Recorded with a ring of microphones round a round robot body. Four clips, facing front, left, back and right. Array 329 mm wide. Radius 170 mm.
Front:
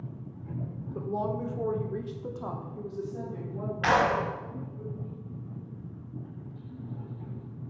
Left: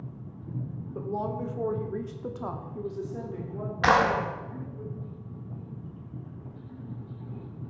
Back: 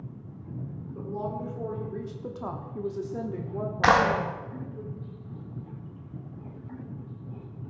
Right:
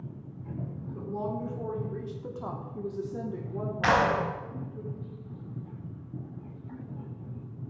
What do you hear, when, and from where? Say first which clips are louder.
0.9 s a woman speaking: left 2 dB, front 2 dB; 50° left, 1.5 m; by 4.8 s 150° right, 2 m
3.8 s a clap: left 2 dB, back 3 dB; 150° left, 1.3 m